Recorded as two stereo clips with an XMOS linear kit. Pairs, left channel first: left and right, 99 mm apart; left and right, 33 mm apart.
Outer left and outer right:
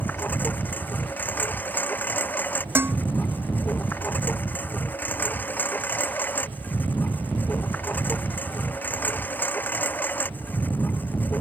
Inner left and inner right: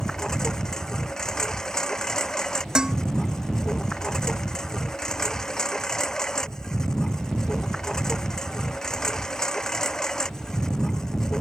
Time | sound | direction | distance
0.0 | a lawn mower | 20° left (ahead or behind) | ?
2.8 | dishes clattering | 20° right (ahead or behind) | ?